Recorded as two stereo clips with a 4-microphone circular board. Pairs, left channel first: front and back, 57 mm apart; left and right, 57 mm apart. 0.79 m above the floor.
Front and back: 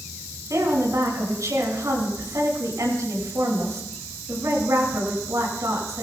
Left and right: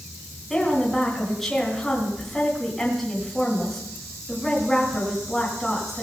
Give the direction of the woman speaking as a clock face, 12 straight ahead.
6 o'clock.